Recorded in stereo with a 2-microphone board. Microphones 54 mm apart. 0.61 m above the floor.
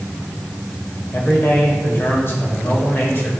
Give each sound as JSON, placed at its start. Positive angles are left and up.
{"t": 1.1, "sound": "a man speaking", "side_deg": 50, "distance_m": 2.5}